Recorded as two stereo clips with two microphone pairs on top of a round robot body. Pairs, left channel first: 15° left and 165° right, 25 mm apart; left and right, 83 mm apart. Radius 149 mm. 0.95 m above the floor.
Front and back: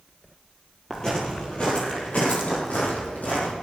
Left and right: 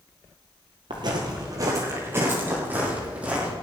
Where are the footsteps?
65° right, 1.2 m; by 3.5 s 15° right, 2.5 m.